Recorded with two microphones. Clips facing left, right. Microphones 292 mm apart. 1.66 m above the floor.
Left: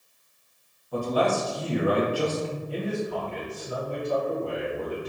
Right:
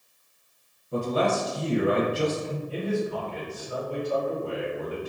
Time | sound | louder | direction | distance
0.9 | a man speaking | even | 25° right (ahead or behind) | 0.8 m
2.7 | a man speaking | right 4 dB | 65° left (ahead or behind) | 1.7 m